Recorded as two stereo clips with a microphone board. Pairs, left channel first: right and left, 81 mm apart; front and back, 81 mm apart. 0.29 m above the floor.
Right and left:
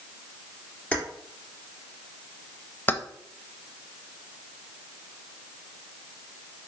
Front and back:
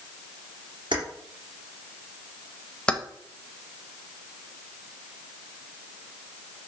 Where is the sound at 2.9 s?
65° right, 0.6 m.